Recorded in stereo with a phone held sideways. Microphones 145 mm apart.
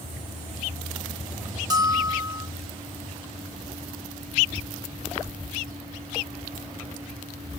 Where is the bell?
25° right (ahead or behind), 1.0 m.